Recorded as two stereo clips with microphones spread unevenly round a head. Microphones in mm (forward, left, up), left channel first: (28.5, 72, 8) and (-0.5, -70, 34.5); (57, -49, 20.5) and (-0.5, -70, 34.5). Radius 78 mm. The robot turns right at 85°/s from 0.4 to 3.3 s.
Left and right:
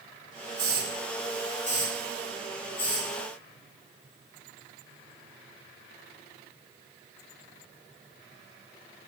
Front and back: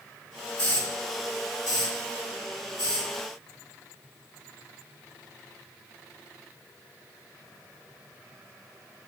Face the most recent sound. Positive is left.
turn(degrees=-170)